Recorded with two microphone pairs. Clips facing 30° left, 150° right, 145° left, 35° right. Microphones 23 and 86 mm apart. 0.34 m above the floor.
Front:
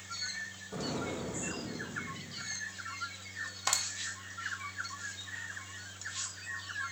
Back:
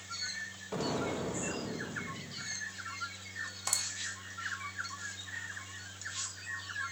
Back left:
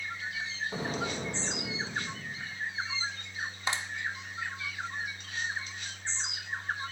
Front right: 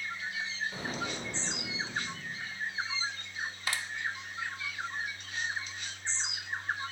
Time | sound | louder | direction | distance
0.7 | an explosion | back 3 dB, back left 3 dB | 155° right | 7.5 m
3.7 | a clap | front 3 dB, back left 3 dB | 80° left | 1.0 m